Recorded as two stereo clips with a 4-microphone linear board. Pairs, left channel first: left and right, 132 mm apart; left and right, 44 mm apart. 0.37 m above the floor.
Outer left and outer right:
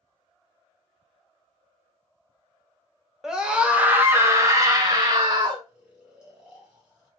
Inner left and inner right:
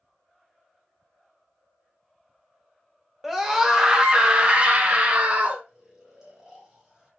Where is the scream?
5° right (ahead or behind), 1.0 m; by 5.6 s 40° right (ahead or behind), 1.1 m.